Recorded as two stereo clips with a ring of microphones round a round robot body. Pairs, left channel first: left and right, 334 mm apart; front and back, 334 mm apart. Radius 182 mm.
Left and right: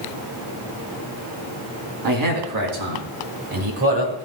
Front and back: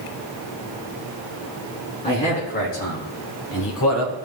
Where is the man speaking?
75° right, 4 m; by 4.1 s 40° right, 3 m.